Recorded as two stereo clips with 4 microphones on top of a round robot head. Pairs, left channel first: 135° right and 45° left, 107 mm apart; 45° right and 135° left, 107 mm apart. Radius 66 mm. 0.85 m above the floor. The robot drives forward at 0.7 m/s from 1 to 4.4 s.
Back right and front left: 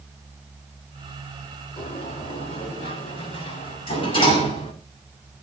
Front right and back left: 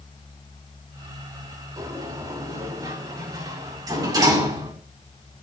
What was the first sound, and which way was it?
A sliding door, 170° right.